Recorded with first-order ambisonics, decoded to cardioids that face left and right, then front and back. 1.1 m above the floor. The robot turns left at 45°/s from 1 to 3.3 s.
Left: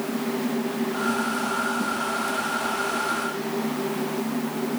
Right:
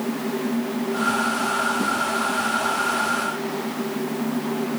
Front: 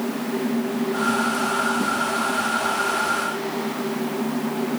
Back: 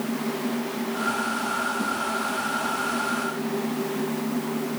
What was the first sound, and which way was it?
Only background noise.